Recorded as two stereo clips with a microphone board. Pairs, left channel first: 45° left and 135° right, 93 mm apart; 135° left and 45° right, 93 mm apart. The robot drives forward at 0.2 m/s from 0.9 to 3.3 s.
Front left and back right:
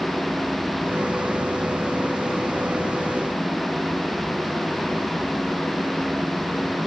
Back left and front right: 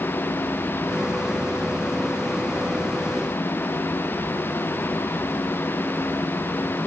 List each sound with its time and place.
Only background noise.